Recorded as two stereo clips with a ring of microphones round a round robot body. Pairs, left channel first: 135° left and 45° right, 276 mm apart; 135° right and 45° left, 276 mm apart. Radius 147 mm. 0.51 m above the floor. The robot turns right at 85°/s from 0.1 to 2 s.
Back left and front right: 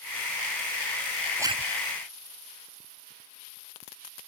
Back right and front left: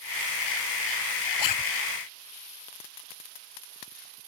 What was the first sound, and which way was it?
A zipper, 130° right.